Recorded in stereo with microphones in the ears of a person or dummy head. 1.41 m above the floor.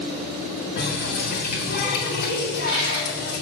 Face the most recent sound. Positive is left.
turn(degrees=-50)  # may be behind; listen again after turning